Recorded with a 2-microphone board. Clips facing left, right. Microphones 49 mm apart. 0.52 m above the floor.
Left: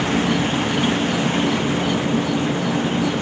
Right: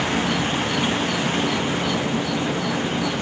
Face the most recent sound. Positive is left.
turn(degrees=25)  # may be behind; listen again after turning